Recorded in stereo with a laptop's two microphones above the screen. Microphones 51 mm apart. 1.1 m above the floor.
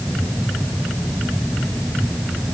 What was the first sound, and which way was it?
Only background noise.